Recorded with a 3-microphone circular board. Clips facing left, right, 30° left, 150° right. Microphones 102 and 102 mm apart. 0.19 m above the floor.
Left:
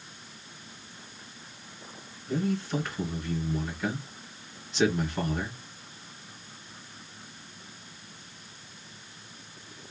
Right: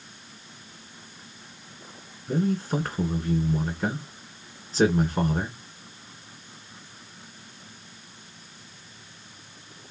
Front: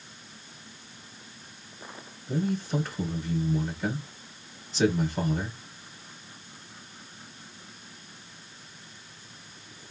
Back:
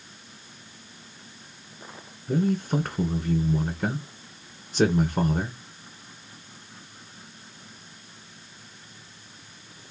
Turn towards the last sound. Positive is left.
turn(degrees=-130)